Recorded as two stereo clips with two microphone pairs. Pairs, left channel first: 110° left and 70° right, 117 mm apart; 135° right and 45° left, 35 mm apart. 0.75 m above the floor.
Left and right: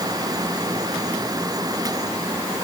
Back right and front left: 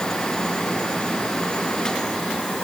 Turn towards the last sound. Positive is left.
No sound to turn to.